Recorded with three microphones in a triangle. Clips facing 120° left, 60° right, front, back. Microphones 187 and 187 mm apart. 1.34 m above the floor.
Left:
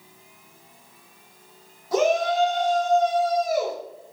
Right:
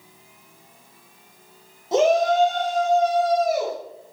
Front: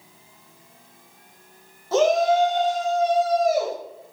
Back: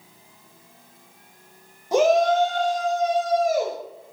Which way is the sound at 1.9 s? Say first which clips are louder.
Right 3 dB, even; 110° right.